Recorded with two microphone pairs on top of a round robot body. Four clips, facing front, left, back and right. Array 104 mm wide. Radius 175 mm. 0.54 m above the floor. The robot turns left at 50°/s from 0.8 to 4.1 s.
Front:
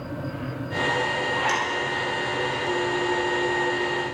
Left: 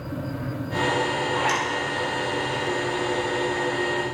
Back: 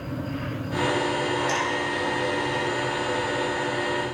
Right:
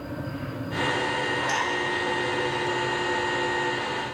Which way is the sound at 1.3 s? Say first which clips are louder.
Left 3 dB, even; 65° left.